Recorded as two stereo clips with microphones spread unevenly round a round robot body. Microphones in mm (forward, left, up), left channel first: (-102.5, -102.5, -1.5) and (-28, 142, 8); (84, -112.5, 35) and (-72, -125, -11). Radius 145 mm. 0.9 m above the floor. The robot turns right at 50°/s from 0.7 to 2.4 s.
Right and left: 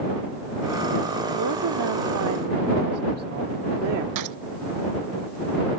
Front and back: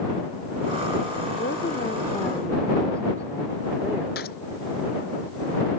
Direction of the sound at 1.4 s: 45° left.